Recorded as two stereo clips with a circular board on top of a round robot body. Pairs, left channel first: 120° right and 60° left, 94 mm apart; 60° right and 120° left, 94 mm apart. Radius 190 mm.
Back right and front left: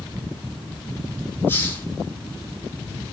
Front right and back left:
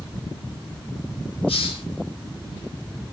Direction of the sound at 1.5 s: 55° right.